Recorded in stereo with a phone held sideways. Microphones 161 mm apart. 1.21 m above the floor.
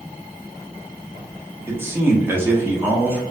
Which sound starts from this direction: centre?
A man speaking, at 1.7 s.